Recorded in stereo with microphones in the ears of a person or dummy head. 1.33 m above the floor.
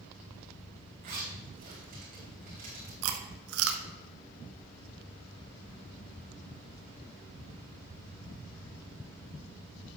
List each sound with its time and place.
1.0 s a zipper: 45° right (ahead or behind), 3 m
3.0 s chewing: 75° right (ahead or behind), 1.0 m